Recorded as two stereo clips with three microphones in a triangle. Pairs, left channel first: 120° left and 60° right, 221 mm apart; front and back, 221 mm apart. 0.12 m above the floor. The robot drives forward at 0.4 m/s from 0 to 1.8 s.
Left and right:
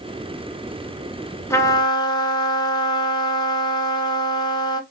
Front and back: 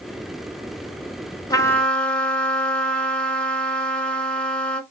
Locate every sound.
1.5 s a trumpet: 55° left, 0.5 m; by 4.8 s 80° left, 0.5 m